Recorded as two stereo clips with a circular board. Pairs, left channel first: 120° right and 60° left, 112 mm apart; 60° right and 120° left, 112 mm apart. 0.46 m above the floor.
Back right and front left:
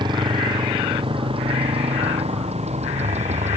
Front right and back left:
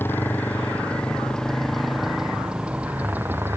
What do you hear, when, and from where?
0.0 s a motorcycle: 10° left; by 3.6 s 50° left